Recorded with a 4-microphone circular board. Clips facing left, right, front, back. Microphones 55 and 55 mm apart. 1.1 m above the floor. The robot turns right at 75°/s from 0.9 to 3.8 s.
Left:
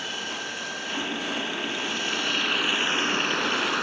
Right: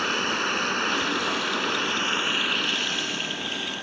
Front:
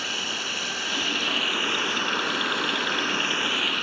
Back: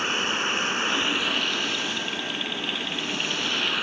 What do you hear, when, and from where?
0.0 s running water: 125° right; by 3.8 s 95° left